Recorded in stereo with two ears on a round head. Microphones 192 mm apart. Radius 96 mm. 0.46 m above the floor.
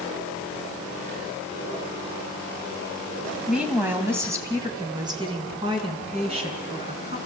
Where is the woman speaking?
5° right (ahead or behind), 2.5 m; by 7.2 s 30° right (ahead or behind), 5 m.